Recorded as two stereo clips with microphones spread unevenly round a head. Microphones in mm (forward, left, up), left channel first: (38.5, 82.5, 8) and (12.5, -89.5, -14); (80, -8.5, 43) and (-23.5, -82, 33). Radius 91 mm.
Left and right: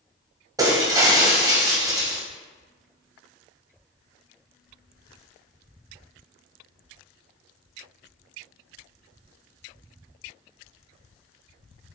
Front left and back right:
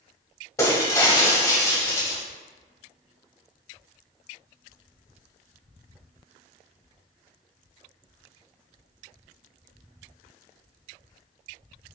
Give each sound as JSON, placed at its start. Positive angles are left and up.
{"t": 0.6, "sound": "breaking glass", "azimuth_deg": -25, "distance_m": 2.0}